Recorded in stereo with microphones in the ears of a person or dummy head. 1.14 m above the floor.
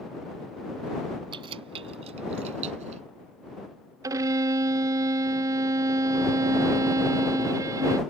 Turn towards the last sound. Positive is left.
turn(degrees=-15)  # may be behind; listen again after turning